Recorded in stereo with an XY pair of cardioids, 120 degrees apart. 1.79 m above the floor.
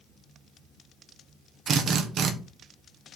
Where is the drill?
50° right, 1.3 m.